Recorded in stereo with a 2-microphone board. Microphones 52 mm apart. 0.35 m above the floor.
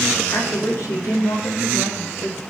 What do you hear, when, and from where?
0.3 s a woman speaking: 75° left (ahead or behind), 6.5 m; by 2.4 s 60° left (ahead or behind), 7 m